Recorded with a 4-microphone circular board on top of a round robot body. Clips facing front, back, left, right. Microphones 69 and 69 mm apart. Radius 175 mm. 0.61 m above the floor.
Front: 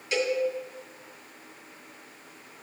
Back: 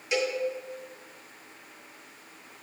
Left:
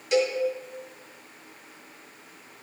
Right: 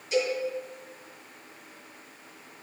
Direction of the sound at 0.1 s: 105° left.